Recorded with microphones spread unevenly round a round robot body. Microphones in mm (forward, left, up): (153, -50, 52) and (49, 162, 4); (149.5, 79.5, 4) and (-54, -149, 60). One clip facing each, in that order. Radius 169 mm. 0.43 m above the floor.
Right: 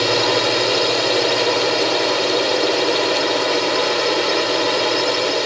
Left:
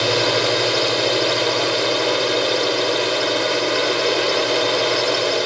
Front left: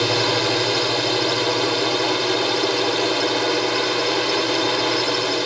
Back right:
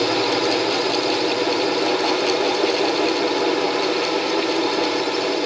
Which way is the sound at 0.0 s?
35° left.